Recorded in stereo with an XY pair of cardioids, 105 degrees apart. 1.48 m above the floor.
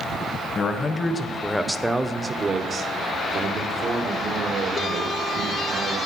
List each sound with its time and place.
0.6 s a man speaking: 45° left, 1.2 m; by 6.0 s 70° right, 3 m